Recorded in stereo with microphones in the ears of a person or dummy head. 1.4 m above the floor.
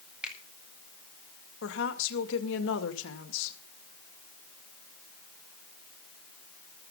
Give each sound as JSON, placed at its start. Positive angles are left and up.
{"t": 0.2, "sound": "a finger snap", "side_deg": -5, "distance_m": 4.5}
{"t": 1.6, "sound": "a woman speaking", "side_deg": 75, "distance_m": 2.0}